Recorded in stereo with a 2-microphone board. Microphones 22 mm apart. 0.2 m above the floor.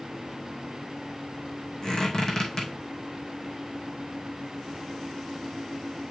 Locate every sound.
1.8 s a squeak: 35° left (ahead or behind), 3 m